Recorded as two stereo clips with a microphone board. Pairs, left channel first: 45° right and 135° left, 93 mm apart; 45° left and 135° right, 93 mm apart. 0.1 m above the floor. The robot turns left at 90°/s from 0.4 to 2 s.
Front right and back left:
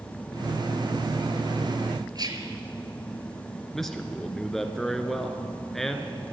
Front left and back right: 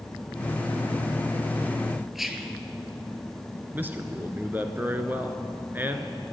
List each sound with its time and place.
2.1 s whispering: 140° left, 1.6 m
3.7 s a man speaking: 125° right, 1.1 m